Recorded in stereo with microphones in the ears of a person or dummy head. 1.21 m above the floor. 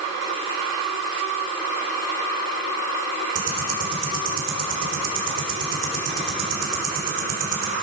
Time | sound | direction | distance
3.4 | ticking | 65° right (ahead or behind) | 3.5 m